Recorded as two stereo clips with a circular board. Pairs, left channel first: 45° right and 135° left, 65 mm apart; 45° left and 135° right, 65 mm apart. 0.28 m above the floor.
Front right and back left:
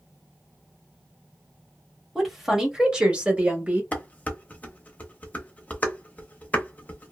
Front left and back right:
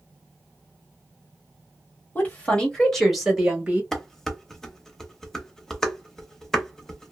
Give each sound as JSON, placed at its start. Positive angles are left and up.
{"t": 2.1, "sound": "a woman speaking", "azimuth_deg": 45, "distance_m": 1.2}
{"t": 3.9, "sound": "dishes clattering", "azimuth_deg": -25, "distance_m": 0.7}